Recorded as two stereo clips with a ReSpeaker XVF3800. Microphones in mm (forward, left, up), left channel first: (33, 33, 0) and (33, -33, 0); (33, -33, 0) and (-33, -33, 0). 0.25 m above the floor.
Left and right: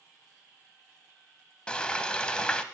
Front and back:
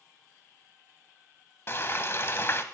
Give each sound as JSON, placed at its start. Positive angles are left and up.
{"t": 1.7, "sound": "frying", "azimuth_deg": 20, "distance_m": 0.8}